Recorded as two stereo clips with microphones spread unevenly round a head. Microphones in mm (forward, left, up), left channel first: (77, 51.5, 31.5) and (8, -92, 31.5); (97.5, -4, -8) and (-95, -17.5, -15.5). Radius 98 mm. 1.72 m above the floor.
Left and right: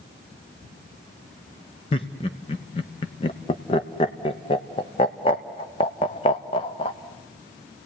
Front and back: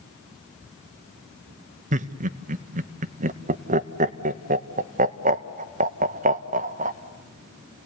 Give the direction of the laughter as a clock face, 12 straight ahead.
8 o'clock.